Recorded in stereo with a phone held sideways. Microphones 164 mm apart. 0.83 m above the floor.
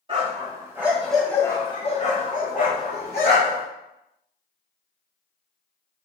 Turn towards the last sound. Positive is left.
turn(degrees=70)  # may be behind; listen again after turning